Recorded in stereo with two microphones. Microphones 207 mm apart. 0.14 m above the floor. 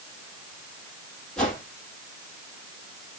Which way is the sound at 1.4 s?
5° left (ahead or behind).